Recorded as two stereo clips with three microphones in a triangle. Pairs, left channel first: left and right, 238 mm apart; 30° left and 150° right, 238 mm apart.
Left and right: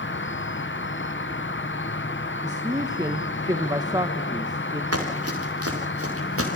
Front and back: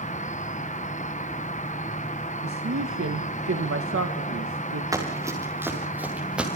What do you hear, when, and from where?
0.0 s an insect: 80° left, 0.9 m
2.4 s a man speaking: 165° right, 1.5 m
4.9 s running footsteps: 75° right, 6.5 m; by 6.5 s 65° right, 6.5 m